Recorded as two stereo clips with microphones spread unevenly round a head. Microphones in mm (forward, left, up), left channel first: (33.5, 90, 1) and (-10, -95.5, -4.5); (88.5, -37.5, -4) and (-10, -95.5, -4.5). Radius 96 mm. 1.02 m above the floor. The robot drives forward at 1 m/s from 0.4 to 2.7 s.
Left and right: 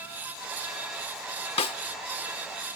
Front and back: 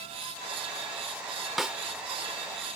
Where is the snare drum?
120° left; by 1.8 s 135° left.